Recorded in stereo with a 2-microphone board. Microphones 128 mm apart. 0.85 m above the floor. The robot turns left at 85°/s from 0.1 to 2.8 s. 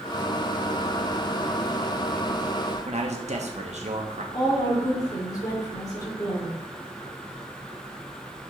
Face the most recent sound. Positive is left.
turn(degrees=30)  # may be behind; listen again after turning